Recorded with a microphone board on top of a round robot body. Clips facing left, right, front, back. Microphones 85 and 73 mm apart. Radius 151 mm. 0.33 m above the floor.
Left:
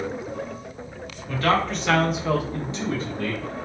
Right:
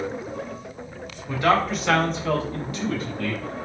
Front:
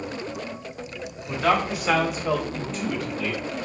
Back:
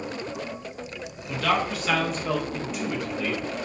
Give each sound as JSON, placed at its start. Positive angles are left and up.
{"t": 1.3, "sound": "a man speaking", "azimuth_deg": -35, "distance_m": 1.4}